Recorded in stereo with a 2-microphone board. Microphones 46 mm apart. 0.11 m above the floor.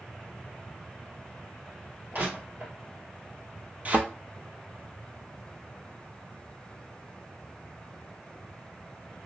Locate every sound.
2.1 s crushing: 50° right (ahead or behind), 2 m
3.9 s a thud: 35° right (ahead or behind), 0.6 m